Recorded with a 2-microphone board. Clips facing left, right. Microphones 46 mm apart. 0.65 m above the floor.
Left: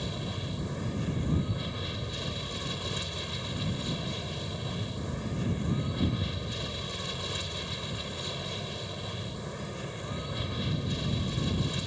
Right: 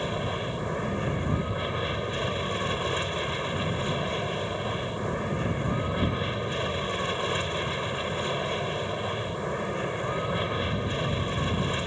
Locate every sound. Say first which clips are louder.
0.0 s an aircraft: right 7 dB; 40° right (ahead or behind)